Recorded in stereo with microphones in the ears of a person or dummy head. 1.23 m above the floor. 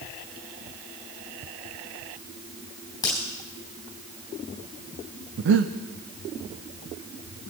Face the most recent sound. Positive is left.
turn(degrees=-65)  # may be behind; listen again after turning